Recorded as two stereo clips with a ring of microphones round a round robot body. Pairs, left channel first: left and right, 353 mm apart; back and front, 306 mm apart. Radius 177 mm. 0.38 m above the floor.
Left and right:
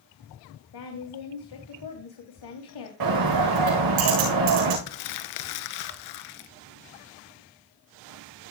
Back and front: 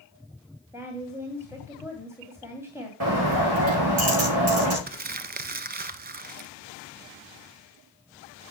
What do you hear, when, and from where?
0.7 s a woman speaking: 80° left, 3 m
3.0 s a bird: 55° right, 5.5 m
4.9 s crumpling: 60° left, 1.0 m